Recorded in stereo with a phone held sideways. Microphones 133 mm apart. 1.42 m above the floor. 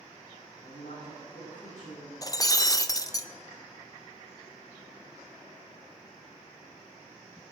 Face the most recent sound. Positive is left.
turn(degrees=25)  # may be behind; listen again after turning